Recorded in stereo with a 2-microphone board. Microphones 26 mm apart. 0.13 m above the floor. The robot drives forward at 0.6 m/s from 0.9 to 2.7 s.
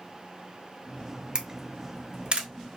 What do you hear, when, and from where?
1.4 s a camera shutter: 35° right (ahead or behind), 0.9 m; by 2.5 s 45° right (ahead or behind), 0.7 m